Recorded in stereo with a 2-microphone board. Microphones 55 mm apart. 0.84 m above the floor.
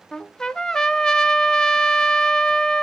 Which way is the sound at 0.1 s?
10° left (ahead or behind).